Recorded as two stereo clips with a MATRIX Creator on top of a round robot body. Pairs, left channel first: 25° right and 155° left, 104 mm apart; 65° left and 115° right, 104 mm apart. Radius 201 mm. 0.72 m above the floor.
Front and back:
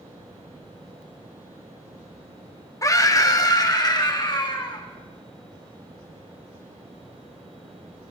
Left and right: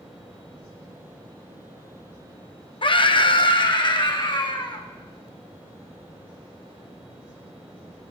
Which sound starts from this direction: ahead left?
A scream, at 2.8 s.